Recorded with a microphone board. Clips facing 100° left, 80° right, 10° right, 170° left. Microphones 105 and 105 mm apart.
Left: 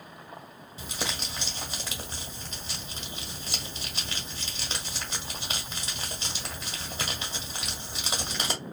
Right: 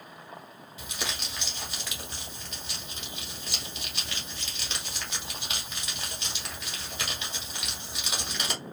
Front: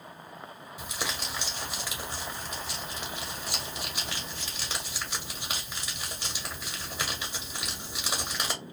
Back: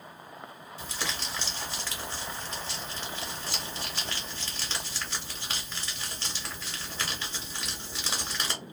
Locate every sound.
0.8 s crumpling: 60° left, 1.1 m